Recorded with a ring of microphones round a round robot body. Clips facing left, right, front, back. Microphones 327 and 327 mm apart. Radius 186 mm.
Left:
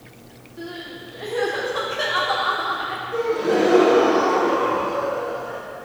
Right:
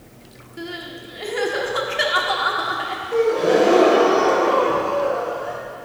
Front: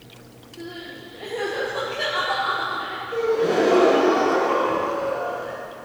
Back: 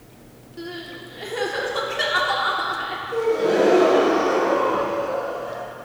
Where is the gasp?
75° right, 2 m.